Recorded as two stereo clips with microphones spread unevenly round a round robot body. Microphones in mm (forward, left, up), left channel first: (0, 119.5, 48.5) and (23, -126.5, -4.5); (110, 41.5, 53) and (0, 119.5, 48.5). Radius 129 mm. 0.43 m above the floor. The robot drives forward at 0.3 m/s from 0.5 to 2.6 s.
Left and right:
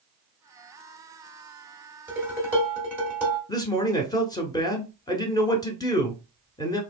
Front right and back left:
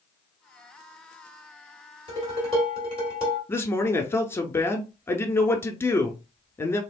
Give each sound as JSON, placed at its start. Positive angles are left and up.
{"t": 2.1, "sound": "dishes clattering", "azimuth_deg": -160, "distance_m": 1.4}
{"t": 3.5, "sound": "a man speaking", "azimuth_deg": 10, "distance_m": 0.9}